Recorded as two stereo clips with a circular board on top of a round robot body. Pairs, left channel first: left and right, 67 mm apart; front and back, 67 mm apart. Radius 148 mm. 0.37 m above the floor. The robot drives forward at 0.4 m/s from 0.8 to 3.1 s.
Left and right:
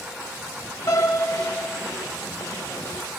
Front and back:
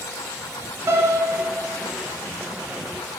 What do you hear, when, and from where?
0.9 s a piano: 125° left, 4.5 m; by 1.9 s 130° left, 5 m